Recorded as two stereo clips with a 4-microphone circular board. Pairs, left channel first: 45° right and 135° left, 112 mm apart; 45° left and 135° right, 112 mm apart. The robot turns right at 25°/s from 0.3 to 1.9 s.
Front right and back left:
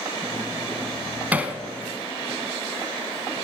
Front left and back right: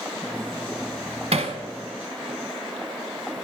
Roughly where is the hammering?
Behind right.